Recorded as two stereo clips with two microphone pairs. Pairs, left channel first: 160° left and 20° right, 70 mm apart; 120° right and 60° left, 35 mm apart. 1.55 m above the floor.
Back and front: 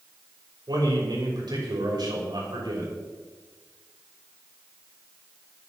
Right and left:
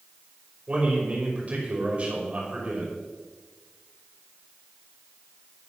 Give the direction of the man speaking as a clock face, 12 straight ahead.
12 o'clock.